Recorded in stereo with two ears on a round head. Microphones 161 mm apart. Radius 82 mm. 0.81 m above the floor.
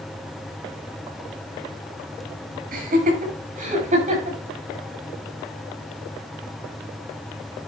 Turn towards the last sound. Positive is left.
turn(degrees=-40)  # may be behind; listen again after turning